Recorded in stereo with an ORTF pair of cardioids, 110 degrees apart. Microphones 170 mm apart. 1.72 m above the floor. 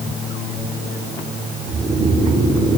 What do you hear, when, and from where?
1.7 s snoring: 30° right, 6.5 m